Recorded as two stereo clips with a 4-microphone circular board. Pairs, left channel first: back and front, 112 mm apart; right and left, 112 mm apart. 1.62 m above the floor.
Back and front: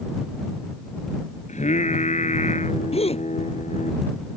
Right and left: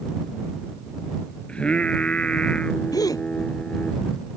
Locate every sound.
1.5 s singing: 170° right
2.9 s a gasp: 150° right